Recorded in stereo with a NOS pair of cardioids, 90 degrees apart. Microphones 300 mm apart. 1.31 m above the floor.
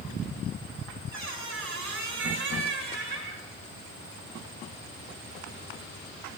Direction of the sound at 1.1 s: 65° right.